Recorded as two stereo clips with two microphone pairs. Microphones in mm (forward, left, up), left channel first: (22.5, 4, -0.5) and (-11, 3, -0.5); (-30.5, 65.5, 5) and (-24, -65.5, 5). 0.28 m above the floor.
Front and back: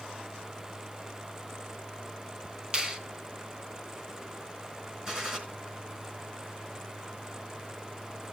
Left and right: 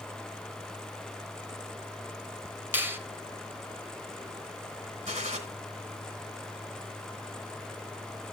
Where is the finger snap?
140° right, 1.3 m.